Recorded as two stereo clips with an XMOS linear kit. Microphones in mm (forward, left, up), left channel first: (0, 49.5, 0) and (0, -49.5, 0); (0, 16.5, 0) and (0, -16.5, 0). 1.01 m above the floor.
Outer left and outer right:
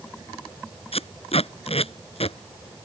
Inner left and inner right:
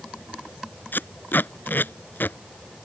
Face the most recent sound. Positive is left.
turn(degrees=80)